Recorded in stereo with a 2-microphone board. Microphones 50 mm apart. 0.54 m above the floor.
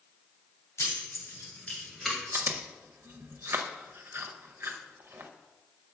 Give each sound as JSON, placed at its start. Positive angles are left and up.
{"t": 0.8, "sound": "keys jangling", "side_deg": 70, "distance_m": 1.7}
{"t": 2.3, "sound": "chewing", "side_deg": -60, "distance_m": 0.6}